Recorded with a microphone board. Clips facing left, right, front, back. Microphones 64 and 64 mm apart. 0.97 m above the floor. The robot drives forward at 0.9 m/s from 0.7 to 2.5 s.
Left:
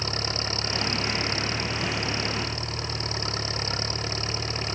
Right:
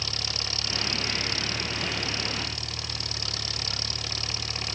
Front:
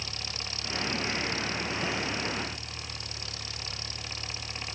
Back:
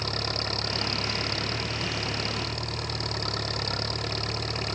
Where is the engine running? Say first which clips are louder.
Left 5 dB, back 9 dB; 145° left.